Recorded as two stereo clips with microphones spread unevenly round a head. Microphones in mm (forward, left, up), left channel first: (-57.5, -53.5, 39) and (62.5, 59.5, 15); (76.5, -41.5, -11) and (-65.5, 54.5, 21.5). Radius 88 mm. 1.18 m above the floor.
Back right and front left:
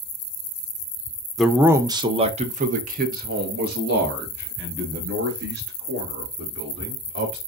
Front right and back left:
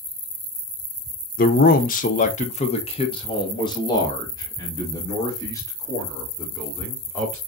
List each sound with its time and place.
1.4 s a man speaking: 45° right, 0.7 m; by 7.4 s 40° left, 3.5 m